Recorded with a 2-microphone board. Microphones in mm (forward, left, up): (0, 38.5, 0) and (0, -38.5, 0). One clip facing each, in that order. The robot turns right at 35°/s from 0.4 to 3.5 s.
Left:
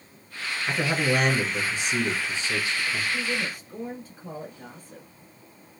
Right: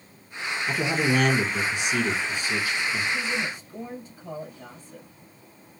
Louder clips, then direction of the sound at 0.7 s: Even; 65° left.